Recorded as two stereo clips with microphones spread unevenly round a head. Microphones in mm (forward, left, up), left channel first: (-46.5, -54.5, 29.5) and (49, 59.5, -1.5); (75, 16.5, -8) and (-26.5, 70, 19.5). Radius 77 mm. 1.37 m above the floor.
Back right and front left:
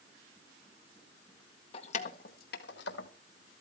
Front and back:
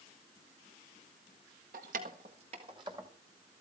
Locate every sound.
1.7 s keys jangling: straight behind, 1.6 m; by 3.1 s 140° right, 2 m